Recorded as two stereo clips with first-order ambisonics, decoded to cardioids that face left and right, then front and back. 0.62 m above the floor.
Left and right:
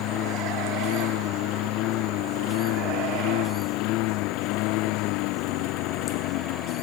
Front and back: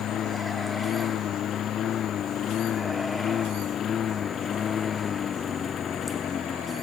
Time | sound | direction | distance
0.0 | a lawn mower | 55° left | ?